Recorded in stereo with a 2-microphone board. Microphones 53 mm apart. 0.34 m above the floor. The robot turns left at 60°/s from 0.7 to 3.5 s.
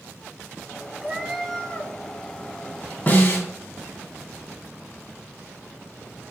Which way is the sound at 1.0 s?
160° right.